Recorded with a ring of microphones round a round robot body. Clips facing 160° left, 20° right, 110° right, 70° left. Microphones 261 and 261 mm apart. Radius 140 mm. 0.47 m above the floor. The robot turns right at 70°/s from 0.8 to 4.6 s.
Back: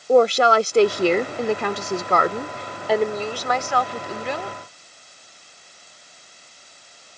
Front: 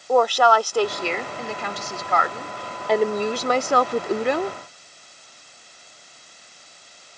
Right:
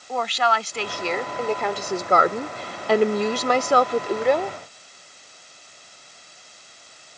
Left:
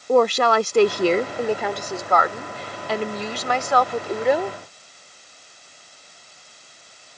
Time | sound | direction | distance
0.1 | a woman speaking | 95° left | ?